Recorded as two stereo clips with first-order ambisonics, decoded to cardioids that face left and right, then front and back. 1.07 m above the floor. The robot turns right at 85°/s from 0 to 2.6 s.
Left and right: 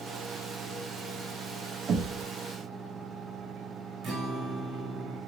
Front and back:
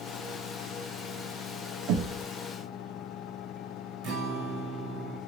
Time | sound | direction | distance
1.9 | knocking | 155° right | 0.7 m
4.0 | a guitar | 145° right | 1.2 m